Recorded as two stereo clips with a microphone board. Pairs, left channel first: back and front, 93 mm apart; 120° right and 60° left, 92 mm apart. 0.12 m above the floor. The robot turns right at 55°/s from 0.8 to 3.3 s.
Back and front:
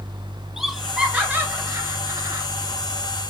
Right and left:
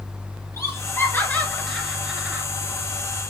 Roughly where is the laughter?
Right.